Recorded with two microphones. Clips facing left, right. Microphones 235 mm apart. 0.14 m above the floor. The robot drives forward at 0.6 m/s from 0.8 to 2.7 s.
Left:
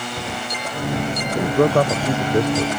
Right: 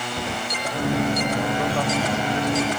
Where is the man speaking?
55° left (ahead or behind); by 2.7 s 60° left (ahead or behind).